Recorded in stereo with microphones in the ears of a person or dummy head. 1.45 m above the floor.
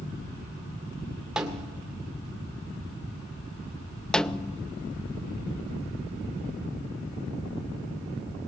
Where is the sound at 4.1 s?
5° left (ahead or behind), 0.5 m.